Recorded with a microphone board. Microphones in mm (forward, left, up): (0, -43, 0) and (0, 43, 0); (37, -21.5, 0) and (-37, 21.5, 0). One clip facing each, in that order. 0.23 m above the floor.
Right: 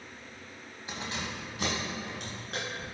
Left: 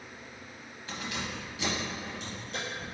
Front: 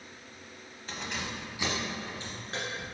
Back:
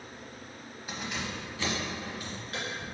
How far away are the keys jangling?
About 1.0 m.